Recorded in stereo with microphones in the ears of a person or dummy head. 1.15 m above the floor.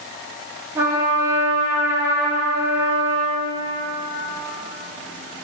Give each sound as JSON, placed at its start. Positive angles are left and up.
{"t": 0.8, "sound": "a trumpet", "side_deg": -15, "distance_m": 3.5}